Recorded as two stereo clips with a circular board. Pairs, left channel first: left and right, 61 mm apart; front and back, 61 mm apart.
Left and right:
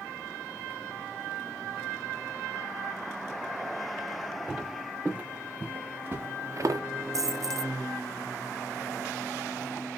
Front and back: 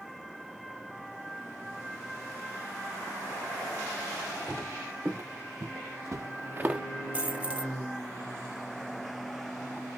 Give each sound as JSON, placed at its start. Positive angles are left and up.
{"t": 4.5, "sound": "footsteps", "azimuth_deg": -160, "distance_m": 3.5}
{"t": 7.1, "sound": "a dropped coin", "azimuth_deg": -115, "distance_m": 0.7}